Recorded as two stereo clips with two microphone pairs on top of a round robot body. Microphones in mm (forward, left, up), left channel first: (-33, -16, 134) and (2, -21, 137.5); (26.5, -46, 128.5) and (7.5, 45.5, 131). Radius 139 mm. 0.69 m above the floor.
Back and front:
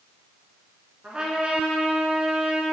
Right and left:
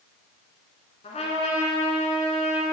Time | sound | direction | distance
1.0 | a trumpet | 65° right | 1.6 m